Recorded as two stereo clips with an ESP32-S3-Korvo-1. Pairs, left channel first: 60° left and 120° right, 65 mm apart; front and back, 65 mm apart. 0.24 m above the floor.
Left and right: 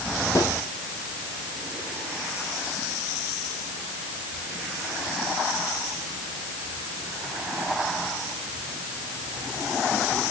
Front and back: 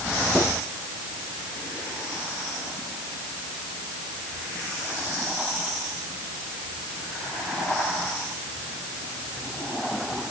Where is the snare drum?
50° left, 5.5 m.